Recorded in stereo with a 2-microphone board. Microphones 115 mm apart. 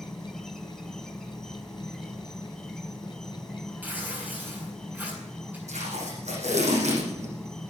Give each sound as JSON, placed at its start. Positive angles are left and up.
{"t": 0.0, "sound": "an insect", "side_deg": 5, "distance_m": 1.1}
{"t": 3.8, "sound": "tearing paper", "side_deg": -15, "distance_m": 7.5}
{"t": 5.7, "sound": "tape being pulled", "side_deg": -80, "distance_m": 8.5}